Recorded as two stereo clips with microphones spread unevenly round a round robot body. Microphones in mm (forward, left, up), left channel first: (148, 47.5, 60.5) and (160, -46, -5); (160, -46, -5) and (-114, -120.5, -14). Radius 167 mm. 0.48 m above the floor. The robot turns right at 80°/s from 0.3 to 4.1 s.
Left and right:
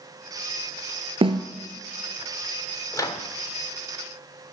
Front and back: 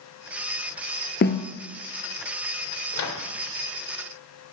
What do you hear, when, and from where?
1.2 s a snare drum: 40° right, 1.5 m; by 1.5 s 25° right, 1.5 m
2.9 s a microwave: 10° left, 1.5 m; by 3.3 s 40° left, 1.5 m